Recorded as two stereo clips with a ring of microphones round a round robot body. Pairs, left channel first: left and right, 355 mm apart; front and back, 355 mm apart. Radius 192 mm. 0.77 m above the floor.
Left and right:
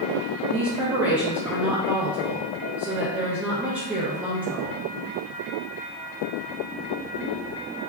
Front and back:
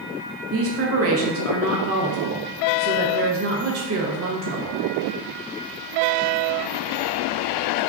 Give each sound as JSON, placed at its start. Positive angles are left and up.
{"t": 0.5, "sound": "a woman speaking", "azimuth_deg": -175, "distance_m": 0.6}